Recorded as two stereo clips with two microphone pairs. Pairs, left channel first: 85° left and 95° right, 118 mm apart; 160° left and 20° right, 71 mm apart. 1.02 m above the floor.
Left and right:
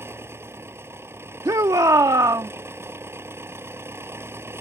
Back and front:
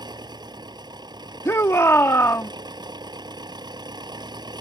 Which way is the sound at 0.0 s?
25° right.